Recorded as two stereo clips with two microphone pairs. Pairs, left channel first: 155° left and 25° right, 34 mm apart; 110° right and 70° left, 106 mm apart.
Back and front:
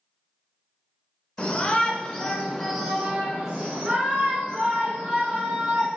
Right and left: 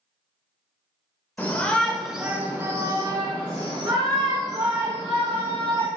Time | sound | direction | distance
1.4 | a shout | 170° right | 1.0 m